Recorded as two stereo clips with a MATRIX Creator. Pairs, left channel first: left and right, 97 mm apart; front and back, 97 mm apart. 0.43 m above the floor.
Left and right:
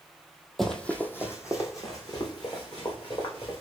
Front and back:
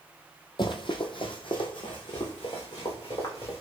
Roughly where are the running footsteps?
Ahead.